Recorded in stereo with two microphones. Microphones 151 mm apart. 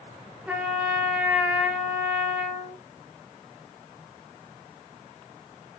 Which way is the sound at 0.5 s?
5° right (ahead or behind).